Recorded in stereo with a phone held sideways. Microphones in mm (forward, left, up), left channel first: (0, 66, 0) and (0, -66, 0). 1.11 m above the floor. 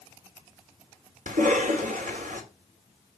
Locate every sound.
1.3 s a cough: 80° right, 3 m